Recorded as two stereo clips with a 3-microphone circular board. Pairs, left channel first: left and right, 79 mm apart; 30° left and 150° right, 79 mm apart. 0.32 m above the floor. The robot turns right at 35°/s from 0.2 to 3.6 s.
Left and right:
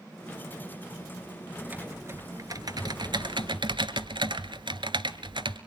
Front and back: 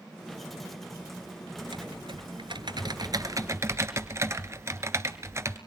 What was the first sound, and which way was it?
Typing on a keyboard, 165° right.